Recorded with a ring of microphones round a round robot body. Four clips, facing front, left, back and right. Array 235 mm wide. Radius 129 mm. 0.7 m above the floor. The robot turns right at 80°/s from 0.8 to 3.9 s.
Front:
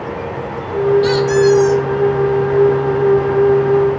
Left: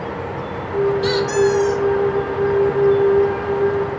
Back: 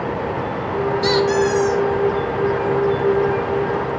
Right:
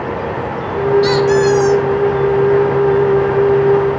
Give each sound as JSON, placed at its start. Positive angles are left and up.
{"t": 1.0, "sound": "a squeak", "azimuth_deg": -140, "distance_m": 2.0}